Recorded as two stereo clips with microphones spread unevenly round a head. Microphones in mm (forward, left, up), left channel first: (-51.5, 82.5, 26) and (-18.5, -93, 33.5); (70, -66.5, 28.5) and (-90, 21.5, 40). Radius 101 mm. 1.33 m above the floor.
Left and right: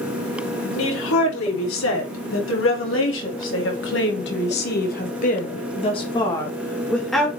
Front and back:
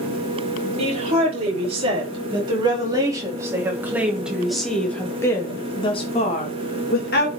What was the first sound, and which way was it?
A woman speaking, 90° left.